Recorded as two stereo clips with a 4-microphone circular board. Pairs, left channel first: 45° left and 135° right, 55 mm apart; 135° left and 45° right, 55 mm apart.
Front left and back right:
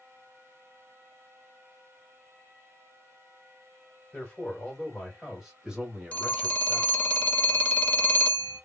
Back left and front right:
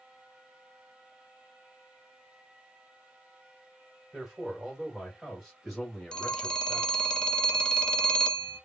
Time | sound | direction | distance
4.1 | a man speaking | 20° left | 1.6 m
6.1 | a phone ringing | 75° left | 0.6 m